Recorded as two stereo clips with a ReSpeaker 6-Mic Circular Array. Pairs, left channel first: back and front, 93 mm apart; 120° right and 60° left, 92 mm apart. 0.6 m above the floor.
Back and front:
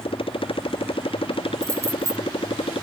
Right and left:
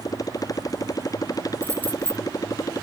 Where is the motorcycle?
170° right.